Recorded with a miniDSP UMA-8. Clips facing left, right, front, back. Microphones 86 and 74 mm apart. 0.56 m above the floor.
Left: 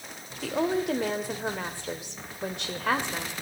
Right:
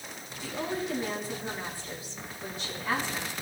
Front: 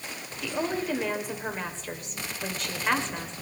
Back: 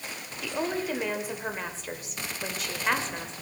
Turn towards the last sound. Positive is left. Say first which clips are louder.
# left 7 dB, front 1 dB
turn(degrees=90)